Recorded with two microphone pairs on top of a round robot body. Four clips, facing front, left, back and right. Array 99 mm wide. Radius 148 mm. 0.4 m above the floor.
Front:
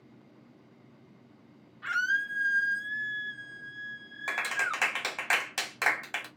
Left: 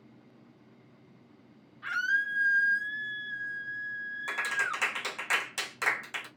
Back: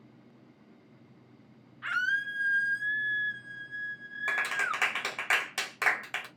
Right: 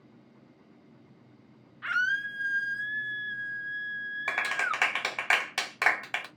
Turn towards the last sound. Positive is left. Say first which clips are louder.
# right 2 dB, even
turn(degrees=-85)